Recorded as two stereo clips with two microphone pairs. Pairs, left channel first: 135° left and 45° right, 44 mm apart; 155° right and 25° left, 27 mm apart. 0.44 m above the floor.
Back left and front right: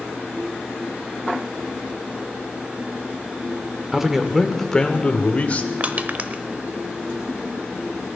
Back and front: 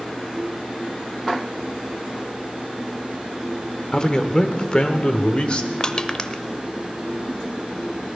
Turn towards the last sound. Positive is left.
turn(degrees=-95)